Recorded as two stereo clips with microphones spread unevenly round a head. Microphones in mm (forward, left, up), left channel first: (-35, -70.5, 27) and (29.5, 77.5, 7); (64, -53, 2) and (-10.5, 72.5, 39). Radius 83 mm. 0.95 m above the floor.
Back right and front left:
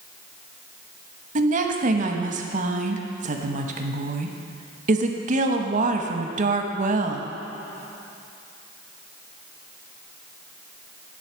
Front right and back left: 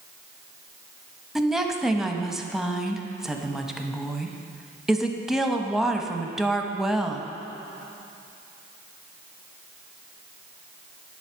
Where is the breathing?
I don't hear breathing.